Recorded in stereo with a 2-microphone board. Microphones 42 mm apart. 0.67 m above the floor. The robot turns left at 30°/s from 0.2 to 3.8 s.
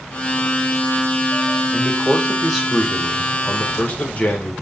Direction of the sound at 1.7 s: 155° right.